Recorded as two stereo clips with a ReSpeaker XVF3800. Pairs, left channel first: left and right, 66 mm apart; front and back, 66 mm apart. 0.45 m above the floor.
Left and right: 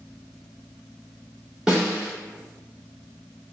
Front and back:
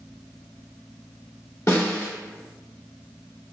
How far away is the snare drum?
About 1.3 m.